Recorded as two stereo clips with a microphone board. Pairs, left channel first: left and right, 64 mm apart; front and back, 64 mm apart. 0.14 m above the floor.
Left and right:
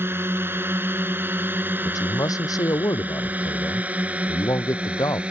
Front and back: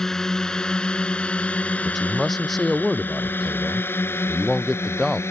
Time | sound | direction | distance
0.0 | a drone | 80° right | ?
1.8 | a man speaking | 90° left | ?